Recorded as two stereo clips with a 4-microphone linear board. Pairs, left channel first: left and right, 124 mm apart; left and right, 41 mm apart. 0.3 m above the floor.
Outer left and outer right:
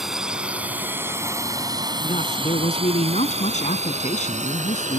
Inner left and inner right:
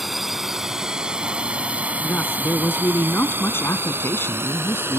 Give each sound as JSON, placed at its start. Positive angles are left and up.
{"t": 0.0, "sound": "a drone", "side_deg": -5}
{"t": 2.0, "sound": "a man speaking", "side_deg": 65}